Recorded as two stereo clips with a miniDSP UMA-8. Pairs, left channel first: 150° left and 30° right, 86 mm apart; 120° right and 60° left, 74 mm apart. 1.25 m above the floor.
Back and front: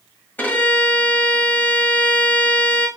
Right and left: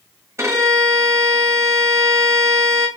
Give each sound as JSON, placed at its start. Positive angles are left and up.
{"t": 0.4, "sound": "a violin", "azimuth_deg": 90, "distance_m": 1.4}